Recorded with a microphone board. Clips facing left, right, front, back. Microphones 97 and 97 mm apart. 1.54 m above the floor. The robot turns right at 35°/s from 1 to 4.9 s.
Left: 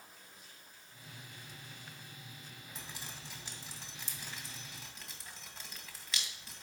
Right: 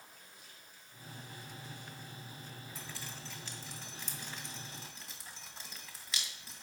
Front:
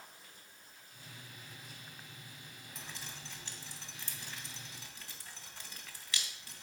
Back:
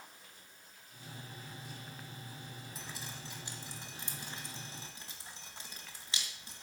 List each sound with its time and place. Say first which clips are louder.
2.8 s dripping: even, even; 105° left, 1.5 m; by 6.6 s straight behind, 1.5 m